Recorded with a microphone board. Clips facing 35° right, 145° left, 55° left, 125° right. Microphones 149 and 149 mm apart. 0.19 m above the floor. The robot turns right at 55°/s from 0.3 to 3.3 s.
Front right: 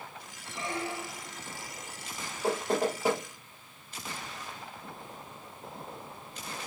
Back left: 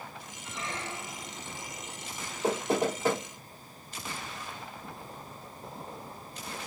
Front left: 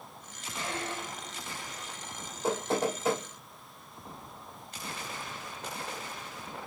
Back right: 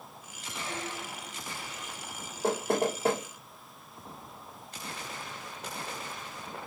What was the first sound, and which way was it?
A squeak, 25° left.